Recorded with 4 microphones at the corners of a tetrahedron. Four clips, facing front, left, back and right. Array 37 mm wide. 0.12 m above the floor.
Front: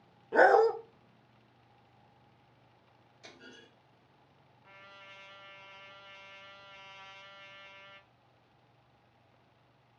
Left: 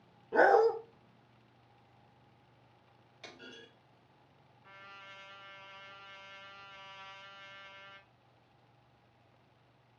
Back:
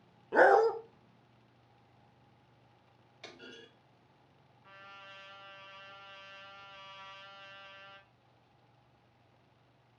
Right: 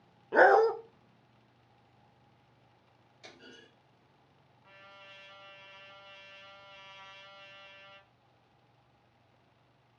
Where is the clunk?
145° left, 3.5 m.